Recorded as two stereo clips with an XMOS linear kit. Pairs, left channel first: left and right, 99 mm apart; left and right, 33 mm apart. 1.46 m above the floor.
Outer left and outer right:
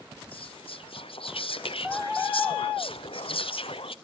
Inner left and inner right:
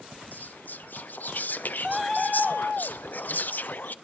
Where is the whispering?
65° left (ahead or behind), 0.5 m.